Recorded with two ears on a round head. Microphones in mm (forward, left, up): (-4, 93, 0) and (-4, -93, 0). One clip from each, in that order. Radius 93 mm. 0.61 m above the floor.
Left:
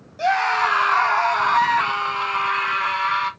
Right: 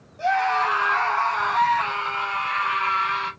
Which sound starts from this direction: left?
A scream, at 0.2 s.